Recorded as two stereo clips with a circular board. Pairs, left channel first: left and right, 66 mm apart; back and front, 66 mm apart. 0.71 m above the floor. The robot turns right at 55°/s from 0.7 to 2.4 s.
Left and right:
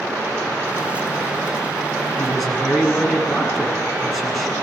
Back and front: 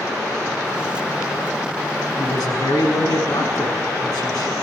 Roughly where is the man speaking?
Behind.